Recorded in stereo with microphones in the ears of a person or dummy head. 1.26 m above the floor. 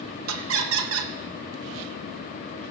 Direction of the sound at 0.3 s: 75° right (ahead or behind).